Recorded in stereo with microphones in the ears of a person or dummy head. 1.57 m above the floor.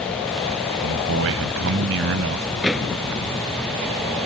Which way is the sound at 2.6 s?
5° right (ahead or behind).